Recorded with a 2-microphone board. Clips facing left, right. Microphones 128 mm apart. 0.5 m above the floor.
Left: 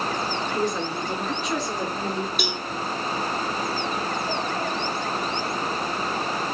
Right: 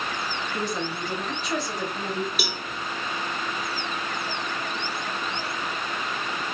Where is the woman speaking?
5° right (ahead or behind), 2.5 m.